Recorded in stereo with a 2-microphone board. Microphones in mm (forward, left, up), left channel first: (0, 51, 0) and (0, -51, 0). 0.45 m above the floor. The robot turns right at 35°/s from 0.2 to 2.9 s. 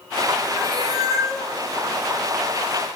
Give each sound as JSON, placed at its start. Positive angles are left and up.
{"t": 0.6, "sound": "a cat meowing", "azimuth_deg": -55, "distance_m": 2.5}